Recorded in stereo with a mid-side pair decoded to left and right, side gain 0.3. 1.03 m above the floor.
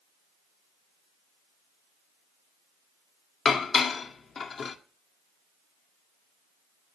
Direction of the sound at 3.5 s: 60° left.